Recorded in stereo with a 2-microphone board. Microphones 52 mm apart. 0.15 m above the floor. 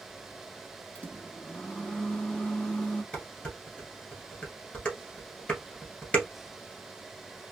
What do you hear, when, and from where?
0.9 s a microwave: 25° left (ahead or behind), 1.0 m
3.1 s dishes clattering: 25° left (ahead or behind), 1.8 m